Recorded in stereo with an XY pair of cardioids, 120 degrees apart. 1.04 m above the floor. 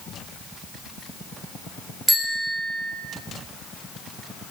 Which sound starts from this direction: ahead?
A bicycle bell, at 2.1 s.